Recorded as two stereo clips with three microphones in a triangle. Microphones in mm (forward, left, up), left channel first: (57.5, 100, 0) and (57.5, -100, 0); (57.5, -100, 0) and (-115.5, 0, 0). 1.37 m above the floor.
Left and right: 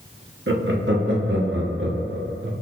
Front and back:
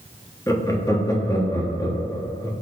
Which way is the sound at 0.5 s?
105° right.